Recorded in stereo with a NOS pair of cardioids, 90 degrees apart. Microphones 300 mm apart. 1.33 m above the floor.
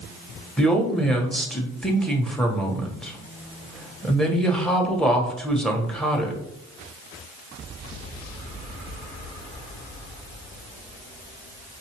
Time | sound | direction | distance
0.6 | a woman speaking | straight ahead | 1.1 m